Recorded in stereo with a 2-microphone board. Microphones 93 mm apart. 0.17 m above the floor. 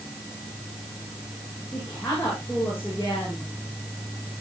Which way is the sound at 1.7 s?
25° left (ahead or behind).